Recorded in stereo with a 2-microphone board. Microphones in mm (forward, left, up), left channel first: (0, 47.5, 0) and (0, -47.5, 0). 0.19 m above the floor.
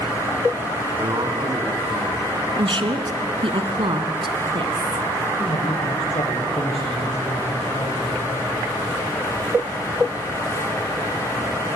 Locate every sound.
1.0 s a man speaking: 45° right (ahead or behind), 2.5 m
2.6 s a woman speaking: 60° right (ahead or behind), 1.9 m
5.4 s a man speaking: 70° left (ahead or behind), 5 m